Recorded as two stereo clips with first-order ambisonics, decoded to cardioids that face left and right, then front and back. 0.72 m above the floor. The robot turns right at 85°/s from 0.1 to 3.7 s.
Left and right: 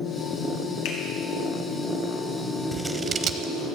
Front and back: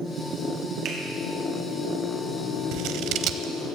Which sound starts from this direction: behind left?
A finger snap, at 0.8 s.